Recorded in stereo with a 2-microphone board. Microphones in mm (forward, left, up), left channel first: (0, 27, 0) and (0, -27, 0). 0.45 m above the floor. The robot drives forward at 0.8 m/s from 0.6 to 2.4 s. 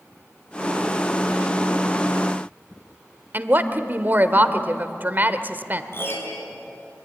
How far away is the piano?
About 5 m.